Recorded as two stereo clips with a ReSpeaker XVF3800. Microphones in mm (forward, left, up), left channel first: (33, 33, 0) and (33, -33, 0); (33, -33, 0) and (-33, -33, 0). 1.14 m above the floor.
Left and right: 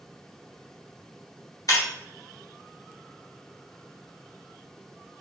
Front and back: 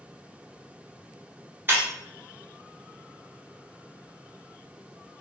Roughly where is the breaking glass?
Behind left.